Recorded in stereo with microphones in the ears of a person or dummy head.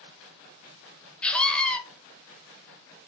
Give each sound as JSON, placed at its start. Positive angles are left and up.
{"t": 1.2, "sound": "a scream", "side_deg": 5, "distance_m": 0.7}